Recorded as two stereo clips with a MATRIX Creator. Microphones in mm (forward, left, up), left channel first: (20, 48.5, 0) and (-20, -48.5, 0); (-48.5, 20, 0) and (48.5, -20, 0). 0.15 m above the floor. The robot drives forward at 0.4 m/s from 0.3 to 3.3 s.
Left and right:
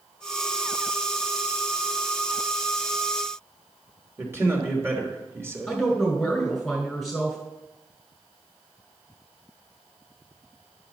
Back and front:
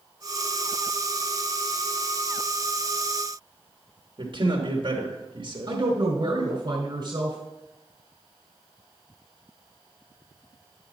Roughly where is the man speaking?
Ahead right.